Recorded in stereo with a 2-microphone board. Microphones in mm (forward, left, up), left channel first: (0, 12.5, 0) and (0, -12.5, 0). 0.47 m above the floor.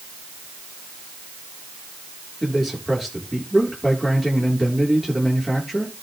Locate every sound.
2.4 s a man speaking: 5° right (ahead or behind), 10 m